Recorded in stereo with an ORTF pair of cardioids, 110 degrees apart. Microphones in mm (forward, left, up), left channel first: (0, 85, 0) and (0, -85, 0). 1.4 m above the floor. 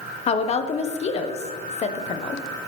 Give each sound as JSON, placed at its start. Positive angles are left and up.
{"t": 0.3, "sound": "a woman speaking", "azimuth_deg": 40, "distance_m": 0.7}